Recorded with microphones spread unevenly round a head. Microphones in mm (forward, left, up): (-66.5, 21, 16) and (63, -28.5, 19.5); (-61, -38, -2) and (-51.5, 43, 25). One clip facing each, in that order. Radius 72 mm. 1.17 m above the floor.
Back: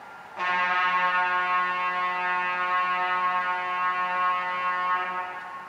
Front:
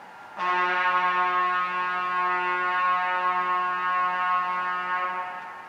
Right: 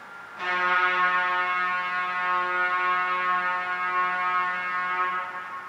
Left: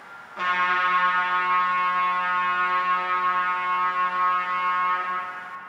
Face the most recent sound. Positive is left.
turn(degrees=80)